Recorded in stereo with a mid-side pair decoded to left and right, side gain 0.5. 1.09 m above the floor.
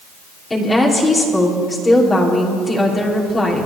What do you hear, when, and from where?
0.5 s a woman speaking: 25° left, 3.5 m